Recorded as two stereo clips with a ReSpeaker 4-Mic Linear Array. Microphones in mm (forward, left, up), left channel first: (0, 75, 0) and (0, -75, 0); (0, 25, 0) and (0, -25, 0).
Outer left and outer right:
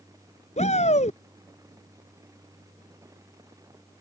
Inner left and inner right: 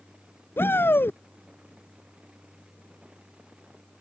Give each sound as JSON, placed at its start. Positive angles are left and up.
{"t": 0.6, "sound": "a shout", "side_deg": 50}